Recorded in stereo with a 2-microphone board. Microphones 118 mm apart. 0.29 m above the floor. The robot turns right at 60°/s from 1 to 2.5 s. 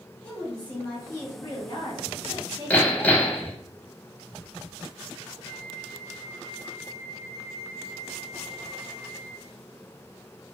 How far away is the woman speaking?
About 1.5 m.